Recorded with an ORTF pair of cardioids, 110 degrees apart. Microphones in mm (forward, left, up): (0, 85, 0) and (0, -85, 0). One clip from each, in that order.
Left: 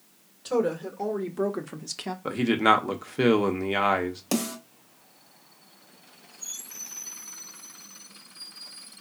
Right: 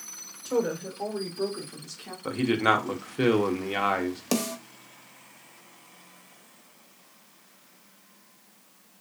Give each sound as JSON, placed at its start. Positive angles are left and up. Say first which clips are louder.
{"t": 0.5, "sound": "a woman speaking", "louder": "left 2 dB", "azimuth_deg": 20, "distance_m": 1.2}
{"t": 2.2, "sound": "a man speaking", "louder": "left 2 dB", "azimuth_deg": 15, "distance_m": 0.8}
{"t": 4.3, "sound": "a snare drum", "louder": "right 1 dB", "azimuth_deg": -10, "distance_m": 1.1}